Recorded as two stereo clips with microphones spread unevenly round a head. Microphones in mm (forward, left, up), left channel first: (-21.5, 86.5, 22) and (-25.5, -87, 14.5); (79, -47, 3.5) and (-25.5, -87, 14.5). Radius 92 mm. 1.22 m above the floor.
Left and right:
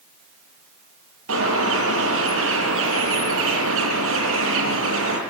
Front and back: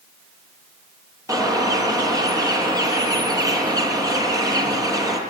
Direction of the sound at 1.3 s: 100° right.